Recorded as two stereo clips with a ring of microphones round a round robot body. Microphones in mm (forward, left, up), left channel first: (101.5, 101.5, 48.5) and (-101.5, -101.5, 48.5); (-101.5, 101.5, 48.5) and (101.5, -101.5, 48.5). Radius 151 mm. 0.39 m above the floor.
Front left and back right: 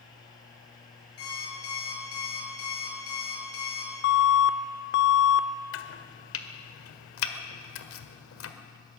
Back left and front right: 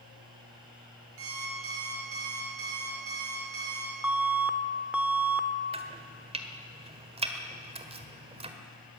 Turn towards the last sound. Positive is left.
turn(degrees=20)